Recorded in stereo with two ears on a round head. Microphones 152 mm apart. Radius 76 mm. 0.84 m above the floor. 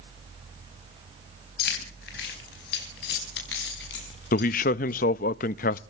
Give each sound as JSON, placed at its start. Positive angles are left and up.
{"t": 1.6, "sound": "keys jangling", "side_deg": 65, "distance_m": 4.0}
{"t": 4.3, "sound": "a man speaking", "side_deg": 50, "distance_m": 0.5}